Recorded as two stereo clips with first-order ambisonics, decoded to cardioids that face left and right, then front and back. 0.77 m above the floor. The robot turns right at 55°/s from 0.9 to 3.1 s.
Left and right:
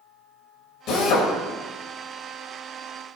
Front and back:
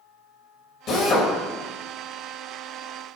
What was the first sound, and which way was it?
A drill, 50° left.